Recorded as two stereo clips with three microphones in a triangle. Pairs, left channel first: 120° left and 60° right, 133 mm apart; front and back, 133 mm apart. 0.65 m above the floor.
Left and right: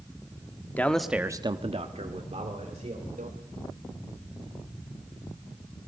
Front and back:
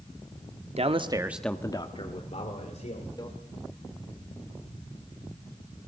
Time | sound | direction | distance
0.8 | a man speaking | 165° right | 1.2 m
3.2 | a microwave | 60° right | 2.0 m